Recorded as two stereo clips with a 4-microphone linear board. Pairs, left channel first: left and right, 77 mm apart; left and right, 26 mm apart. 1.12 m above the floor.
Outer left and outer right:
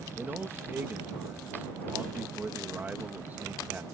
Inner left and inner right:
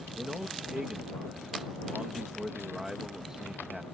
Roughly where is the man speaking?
Right.